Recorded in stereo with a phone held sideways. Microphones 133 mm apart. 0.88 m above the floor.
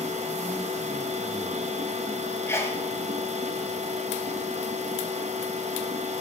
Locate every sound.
0.0 s a machine running: 60° right (ahead or behind), 0.8 m
2.5 s a sneeze: 20° left (ahead or behind), 1.1 m